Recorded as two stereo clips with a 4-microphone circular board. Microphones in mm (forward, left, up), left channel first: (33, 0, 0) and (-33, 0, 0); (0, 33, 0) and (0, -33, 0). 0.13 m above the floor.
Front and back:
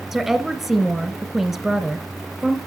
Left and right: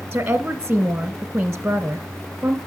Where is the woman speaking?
110° right, 1.1 m.